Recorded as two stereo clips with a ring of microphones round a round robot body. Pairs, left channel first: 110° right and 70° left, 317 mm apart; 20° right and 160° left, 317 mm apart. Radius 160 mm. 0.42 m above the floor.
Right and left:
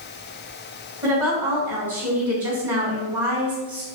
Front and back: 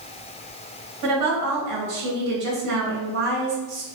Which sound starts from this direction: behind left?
A woman speaking, at 1.0 s.